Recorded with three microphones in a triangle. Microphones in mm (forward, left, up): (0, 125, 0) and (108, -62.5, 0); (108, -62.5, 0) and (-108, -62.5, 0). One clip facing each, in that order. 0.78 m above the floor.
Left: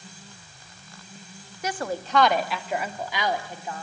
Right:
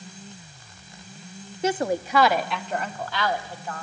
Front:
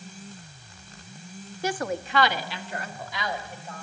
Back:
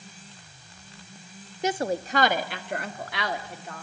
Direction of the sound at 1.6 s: 110° right.